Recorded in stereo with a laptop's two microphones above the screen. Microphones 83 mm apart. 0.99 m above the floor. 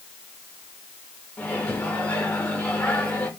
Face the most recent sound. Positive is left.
turn(degrees=15)  # may be behind; listen again after turning